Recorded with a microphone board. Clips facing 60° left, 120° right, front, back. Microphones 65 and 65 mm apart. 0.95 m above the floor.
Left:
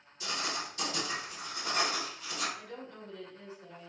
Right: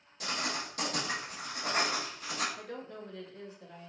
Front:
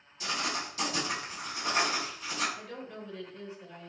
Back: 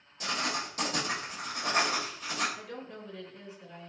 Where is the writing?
145° right, 1.4 m.